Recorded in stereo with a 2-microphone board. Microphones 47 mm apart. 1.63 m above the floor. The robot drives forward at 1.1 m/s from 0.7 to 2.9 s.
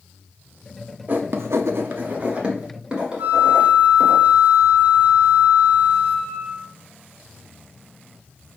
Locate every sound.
1.1 s writing: 45° right (ahead or behind), 0.7 m; by 4.2 s 20° right (ahead or behind), 1.6 m
3.2 s a flute: 50° right (ahead or behind), 2.5 m